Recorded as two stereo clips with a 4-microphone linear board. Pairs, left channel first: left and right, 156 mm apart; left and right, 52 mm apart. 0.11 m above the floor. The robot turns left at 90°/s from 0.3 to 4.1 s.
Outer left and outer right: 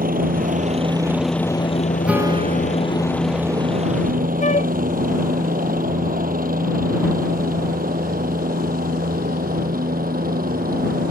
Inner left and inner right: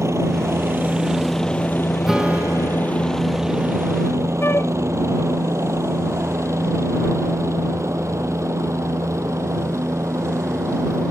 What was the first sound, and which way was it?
A helicopter, 60° right (ahead or behind).